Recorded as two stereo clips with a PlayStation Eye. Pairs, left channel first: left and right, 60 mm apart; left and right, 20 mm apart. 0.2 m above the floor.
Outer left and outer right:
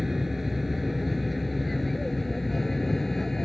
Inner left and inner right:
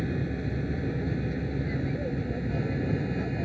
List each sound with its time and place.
0.0 s an aircraft: 5° right (ahead or behind); by 3.5 s 5° left (ahead or behind)